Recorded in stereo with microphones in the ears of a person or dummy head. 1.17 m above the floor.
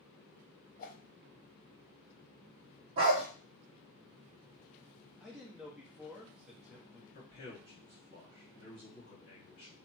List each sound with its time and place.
0.8 s a whoosh: 50° left (ahead or behind), 0.7 m
3.0 s a dog barking: 30° right (ahead or behind), 0.6 m
5.2 s a man speaking: 5° right (ahead or behind), 0.9 m
7.1 s a man speaking: 45° left (ahead or behind), 2 m